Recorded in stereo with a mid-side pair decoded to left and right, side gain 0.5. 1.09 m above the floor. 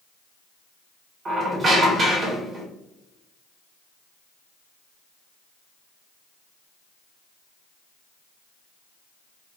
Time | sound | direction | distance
1.2 | a squeak | 35° right | 2.0 m